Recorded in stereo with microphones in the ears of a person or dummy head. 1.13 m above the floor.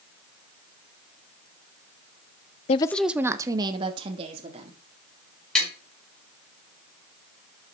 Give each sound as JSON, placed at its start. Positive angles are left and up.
{"t": 2.7, "sound": "a woman speaking", "side_deg": 35, "distance_m": 0.5}
{"t": 5.5, "sound": "tapping", "side_deg": 5, "distance_m": 5.5}